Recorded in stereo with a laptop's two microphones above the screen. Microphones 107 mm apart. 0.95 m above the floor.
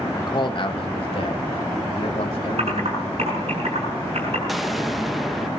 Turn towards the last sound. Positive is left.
turn(degrees=0)  # may be behind; listen again after turning